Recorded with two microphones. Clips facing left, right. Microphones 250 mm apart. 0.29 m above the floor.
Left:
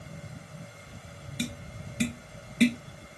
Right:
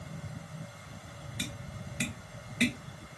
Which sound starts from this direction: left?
Tapping, at 1.4 s.